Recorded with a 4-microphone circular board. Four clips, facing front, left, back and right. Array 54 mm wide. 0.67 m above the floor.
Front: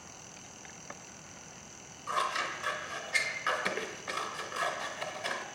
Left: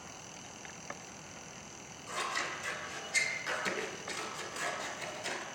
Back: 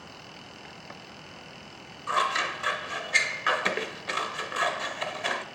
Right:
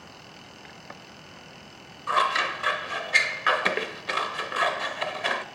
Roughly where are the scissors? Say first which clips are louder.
Right 13 dB, back 6 dB; right.